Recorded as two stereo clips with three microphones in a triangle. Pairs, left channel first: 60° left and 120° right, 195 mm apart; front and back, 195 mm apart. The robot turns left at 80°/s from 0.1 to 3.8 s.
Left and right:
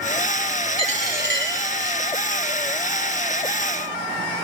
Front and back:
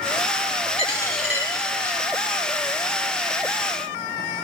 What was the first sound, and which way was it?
A dropped coin, 55° right.